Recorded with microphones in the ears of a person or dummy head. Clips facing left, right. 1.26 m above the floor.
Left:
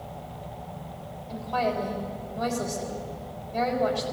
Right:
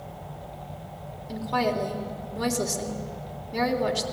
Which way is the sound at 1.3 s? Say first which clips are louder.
Right 1 dB; 65° right (ahead or behind).